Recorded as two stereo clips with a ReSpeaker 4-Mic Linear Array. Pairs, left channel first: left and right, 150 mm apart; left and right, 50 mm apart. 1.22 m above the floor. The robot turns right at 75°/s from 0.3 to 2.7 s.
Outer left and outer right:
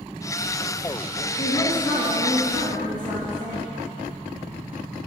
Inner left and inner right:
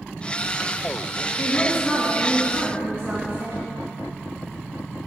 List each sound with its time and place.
1.4 s a woman speaking: 130° left, 2.5 m; by 3.6 s 130° right, 2.5 m